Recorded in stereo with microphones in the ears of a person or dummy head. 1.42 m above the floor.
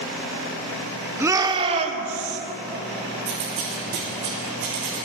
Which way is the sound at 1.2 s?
10° right (ahead or behind).